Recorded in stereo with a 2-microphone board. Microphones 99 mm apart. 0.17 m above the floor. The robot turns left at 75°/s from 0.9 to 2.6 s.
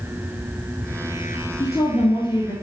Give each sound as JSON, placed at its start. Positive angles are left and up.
{"t": 1.6, "sound": "a woman speaking", "azimuth_deg": 140, "distance_m": 2.0}